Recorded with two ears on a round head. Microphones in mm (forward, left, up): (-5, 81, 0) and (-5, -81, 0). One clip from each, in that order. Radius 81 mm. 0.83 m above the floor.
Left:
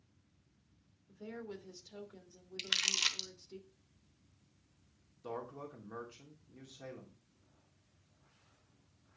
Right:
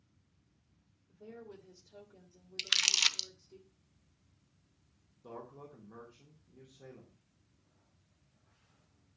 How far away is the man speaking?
About 2.5 m.